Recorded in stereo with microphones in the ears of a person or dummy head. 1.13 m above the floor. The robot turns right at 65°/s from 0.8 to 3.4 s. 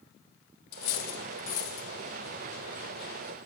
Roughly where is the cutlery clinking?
Left.